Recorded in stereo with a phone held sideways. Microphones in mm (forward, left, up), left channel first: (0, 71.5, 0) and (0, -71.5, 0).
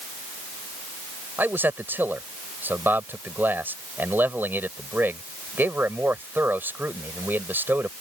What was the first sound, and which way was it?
A man speaking, 15° right (ahead or behind).